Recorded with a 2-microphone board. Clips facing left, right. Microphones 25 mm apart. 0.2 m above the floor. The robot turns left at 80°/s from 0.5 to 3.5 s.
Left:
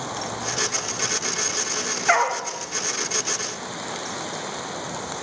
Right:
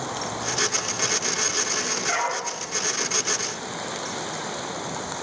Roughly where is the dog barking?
Left.